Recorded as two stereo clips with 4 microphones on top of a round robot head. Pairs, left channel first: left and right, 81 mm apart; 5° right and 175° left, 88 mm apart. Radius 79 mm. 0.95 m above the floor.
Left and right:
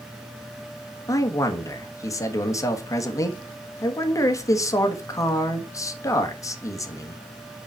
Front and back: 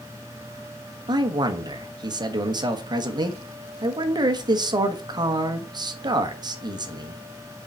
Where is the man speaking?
140° left, 1.4 m.